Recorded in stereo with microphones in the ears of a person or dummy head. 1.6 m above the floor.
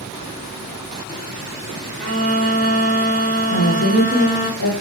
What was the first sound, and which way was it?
A violin, 5° left (ahead or behind).